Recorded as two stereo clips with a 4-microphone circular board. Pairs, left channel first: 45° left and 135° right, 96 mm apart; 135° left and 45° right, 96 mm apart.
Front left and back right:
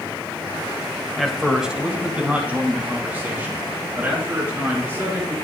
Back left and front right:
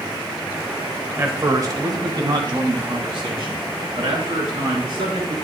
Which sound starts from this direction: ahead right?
A man speaking, at 1.2 s.